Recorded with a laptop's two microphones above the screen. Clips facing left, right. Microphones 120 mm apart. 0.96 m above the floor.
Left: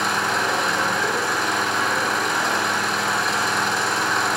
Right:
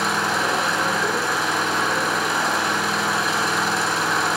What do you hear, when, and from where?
0.0 s an engine running: 5° right (ahead or behind), 4.5 m